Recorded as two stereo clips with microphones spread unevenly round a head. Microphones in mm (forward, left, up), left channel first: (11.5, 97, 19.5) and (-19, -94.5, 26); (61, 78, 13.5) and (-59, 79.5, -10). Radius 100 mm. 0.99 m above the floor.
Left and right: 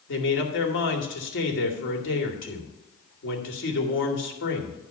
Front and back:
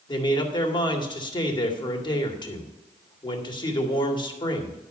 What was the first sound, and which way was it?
A man speaking, 50° left.